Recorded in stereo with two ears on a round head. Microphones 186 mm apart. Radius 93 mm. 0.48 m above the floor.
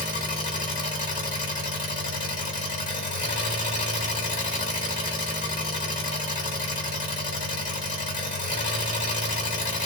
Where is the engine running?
40° left (ahead or behind), 1.2 m.